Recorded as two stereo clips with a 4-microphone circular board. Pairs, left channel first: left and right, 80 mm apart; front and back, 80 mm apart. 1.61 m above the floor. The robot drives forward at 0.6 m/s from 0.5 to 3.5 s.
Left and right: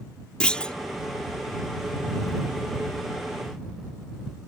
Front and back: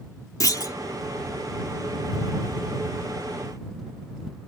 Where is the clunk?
15° left; by 0.7 s 20° left.